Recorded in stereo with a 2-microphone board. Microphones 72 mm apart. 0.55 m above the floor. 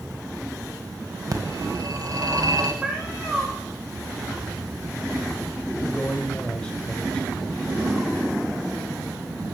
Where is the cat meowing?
10° right (ahead or behind), 5 m.